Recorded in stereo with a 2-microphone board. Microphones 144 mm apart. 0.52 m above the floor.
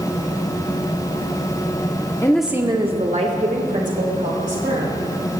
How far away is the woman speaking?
About 0.7 m.